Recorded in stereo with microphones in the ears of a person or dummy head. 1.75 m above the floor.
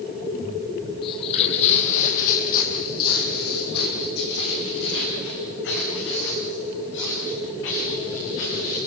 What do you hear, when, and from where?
1.0 s footsteps: 25° left (ahead or behind), 3 m; by 8.8 s 75° left (ahead or behind), 12 m